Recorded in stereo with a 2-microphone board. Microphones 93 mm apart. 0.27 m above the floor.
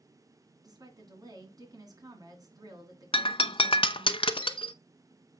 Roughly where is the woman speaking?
Right.